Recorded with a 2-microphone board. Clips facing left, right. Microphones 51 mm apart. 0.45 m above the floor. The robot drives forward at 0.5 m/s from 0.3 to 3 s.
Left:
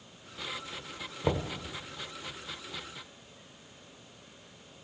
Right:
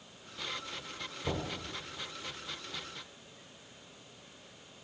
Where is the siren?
I don't hear a siren.